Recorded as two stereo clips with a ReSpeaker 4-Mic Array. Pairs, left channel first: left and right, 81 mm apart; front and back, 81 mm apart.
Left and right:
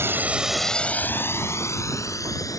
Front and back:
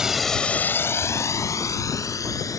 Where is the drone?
105° right; by 2.6 s 45° left.